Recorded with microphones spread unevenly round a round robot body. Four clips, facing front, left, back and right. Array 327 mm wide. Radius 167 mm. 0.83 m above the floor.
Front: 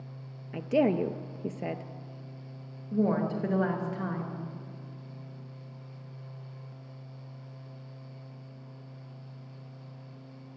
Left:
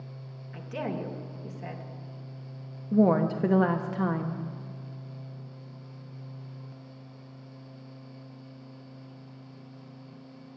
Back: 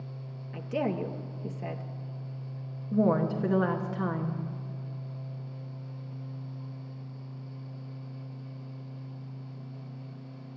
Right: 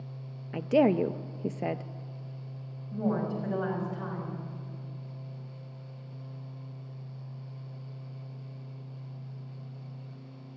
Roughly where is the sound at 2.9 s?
Left.